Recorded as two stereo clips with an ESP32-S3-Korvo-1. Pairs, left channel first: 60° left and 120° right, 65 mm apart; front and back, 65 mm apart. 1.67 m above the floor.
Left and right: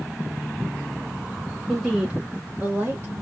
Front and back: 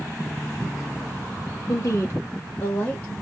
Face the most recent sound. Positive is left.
turn(degrees=-75)